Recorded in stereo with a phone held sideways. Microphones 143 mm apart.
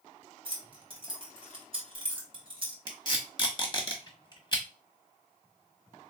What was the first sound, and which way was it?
Keys jangling, 40° right (ahead or behind).